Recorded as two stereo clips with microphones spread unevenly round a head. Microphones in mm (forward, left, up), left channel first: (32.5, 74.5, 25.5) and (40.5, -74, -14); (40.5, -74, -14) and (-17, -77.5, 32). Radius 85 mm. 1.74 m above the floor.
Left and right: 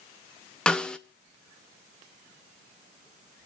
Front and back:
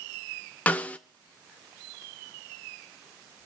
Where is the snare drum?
140° left, 0.6 m.